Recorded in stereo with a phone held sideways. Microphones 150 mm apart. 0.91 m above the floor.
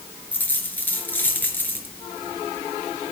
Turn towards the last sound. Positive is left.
turn(degrees=10)  # may be behind; listen again after turning